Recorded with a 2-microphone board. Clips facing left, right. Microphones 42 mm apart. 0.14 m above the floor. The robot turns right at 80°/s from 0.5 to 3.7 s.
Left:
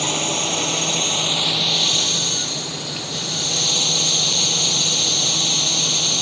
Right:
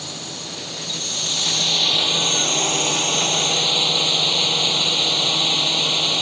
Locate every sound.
0.0 s a drone: 80° left; by 6.2 s 25° right